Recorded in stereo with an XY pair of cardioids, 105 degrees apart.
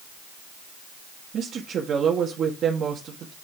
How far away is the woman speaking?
About 1.7 m.